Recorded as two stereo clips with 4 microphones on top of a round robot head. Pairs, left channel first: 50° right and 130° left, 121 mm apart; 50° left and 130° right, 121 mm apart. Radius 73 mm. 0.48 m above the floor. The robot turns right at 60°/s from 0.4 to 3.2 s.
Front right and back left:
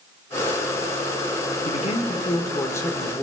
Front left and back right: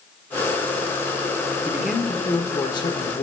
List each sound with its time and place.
1.6 s a man speaking: 55° right, 1.2 m; by 3.2 s 35° left, 1.2 m